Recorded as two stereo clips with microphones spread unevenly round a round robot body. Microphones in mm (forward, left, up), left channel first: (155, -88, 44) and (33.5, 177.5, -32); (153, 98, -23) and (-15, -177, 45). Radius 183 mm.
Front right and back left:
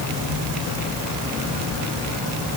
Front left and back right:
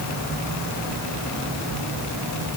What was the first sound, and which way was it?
Only background noise.